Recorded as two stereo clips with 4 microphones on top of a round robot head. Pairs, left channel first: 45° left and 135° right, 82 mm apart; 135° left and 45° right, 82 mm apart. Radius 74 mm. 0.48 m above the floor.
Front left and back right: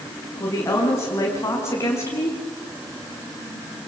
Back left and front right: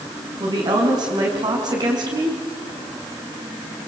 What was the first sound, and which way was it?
A woman speaking, 10° right.